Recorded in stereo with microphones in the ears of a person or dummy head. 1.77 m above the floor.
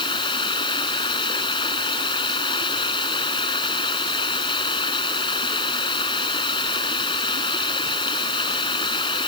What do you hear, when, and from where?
0.0 s running water: 25° left (ahead or behind)